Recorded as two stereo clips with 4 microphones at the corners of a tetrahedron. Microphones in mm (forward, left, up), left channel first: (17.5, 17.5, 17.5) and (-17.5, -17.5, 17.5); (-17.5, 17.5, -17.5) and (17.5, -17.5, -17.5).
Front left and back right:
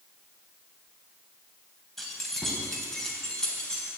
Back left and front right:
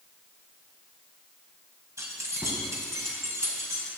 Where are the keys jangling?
45° right, 3 m; by 3.9 s 35° right, 4.5 m.